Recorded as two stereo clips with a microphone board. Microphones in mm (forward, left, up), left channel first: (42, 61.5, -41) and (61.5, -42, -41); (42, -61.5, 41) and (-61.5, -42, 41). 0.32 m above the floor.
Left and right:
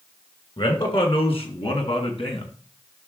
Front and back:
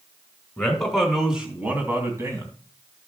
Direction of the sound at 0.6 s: 70° left.